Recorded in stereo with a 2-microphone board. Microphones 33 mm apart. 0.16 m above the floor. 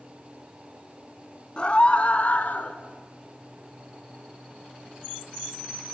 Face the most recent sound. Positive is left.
turn(degrees=55)  # may be behind; listen again after turning